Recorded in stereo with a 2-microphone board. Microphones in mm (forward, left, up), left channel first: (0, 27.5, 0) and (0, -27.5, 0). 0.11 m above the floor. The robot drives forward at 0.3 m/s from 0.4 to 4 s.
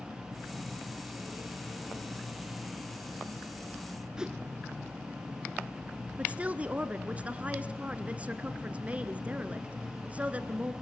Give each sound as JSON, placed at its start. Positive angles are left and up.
{"t": 4.2, "sound": "a whoosh", "side_deg": -10, "distance_m": 0.8}
{"t": 6.2, "sound": "a woman speaking", "side_deg": -25, "distance_m": 1.2}